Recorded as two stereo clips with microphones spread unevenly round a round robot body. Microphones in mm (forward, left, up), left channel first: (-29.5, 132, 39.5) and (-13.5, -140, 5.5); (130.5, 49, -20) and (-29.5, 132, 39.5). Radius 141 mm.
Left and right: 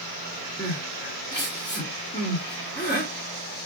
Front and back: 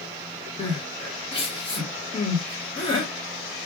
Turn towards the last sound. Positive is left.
turn(degrees=15)